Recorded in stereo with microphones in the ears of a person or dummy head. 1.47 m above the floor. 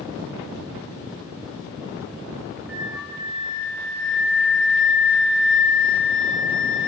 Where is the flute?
Centre (ahead or behind), 2 m.